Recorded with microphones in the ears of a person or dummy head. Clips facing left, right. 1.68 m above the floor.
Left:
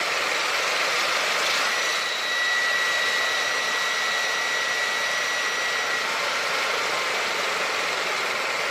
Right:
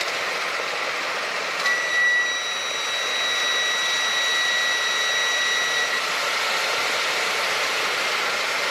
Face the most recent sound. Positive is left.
turn(degrees=-45)  # may be behind; listen again after turning